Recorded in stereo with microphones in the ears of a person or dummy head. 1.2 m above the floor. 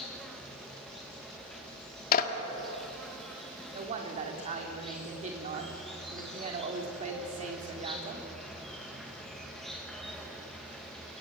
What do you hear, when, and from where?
0.0 s an insect: centre (ahead or behind), 2 m
2.1 s a clap: 45° left (ahead or behind), 1.7 m
3.7 s a woman speaking: 35° right (ahead or behind), 3.5 m